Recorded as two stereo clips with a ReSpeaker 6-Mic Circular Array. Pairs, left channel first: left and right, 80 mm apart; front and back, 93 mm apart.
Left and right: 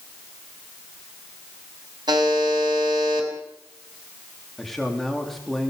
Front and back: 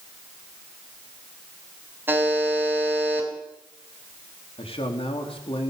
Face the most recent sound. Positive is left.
turn(degrees=0)